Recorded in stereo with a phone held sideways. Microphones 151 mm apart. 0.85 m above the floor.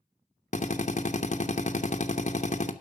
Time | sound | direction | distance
0.5 | a drill | 50° left (ahead or behind) | 0.9 m